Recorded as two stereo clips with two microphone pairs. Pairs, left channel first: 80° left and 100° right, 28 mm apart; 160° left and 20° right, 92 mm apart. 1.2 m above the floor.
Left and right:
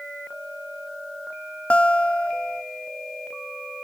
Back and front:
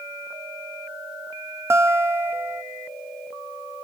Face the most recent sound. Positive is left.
turn(degrees=40)